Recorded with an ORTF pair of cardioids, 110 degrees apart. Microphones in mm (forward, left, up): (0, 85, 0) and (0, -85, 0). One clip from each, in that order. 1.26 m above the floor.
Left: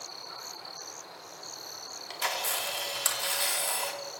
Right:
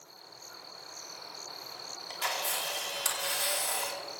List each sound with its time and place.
2.1 s a camera shutter: 15° left, 2 m